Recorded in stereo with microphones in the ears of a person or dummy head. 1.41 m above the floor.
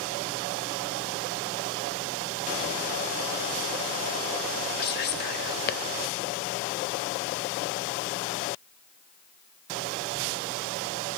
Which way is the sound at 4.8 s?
45° left (ahead or behind).